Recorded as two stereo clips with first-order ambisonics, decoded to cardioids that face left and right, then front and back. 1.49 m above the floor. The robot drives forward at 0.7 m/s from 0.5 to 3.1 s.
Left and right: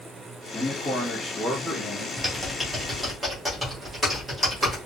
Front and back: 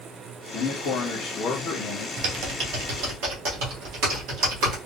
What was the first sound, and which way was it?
A man speaking, 15° left.